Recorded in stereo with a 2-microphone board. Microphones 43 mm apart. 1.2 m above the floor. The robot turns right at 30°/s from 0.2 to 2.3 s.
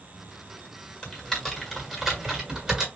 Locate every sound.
1.0 s typing on a keyboard: 20° left (ahead or behind), 1.4 m; by 2.9 s 15° right (ahead or behind), 1.4 m